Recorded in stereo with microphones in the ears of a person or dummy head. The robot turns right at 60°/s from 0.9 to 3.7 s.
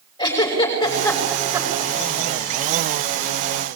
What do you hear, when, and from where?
0.2 s a giggle: 25° left (ahead or behind), 6 m; by 1.9 s 40° right (ahead or behind), 6 m